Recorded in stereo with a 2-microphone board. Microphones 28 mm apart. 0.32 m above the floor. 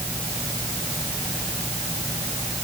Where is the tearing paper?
No tearing paper in this recording.